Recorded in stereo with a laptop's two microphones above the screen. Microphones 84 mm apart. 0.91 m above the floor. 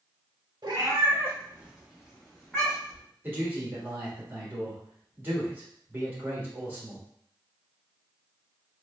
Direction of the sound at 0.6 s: 55° right (ahead or behind).